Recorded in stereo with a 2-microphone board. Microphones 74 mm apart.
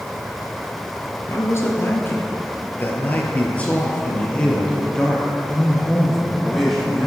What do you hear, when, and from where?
1.3 s a man speaking: 40° left (ahead or behind), 1.9 m; by 7.1 s centre (ahead or behind), 3.5 m